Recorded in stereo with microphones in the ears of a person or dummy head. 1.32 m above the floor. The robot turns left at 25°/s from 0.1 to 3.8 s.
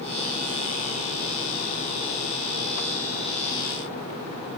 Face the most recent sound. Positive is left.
No sound to turn to.